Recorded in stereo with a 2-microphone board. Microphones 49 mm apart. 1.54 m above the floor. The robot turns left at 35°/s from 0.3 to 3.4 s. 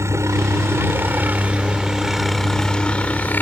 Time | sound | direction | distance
0.0 | a helicopter | 110° right | ?